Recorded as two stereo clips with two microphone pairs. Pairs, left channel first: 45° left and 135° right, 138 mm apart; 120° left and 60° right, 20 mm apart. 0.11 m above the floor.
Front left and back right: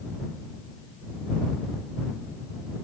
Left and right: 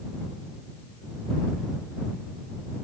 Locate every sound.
Only background noise.